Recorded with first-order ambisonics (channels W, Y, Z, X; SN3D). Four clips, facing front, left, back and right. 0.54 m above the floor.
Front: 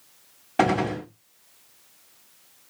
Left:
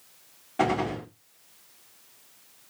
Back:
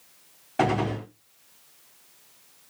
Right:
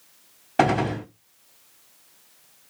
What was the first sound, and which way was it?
A gunshot, 65° right.